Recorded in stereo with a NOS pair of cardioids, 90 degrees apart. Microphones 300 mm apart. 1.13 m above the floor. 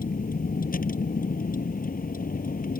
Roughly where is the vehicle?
Ahead left.